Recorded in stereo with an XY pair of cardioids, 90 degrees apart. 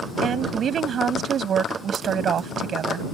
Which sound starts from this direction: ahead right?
A woman speaking, at 0.2 s.